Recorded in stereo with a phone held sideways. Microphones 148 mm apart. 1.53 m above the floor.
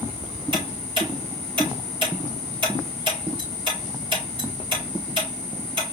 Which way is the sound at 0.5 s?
35° right (ahead or behind).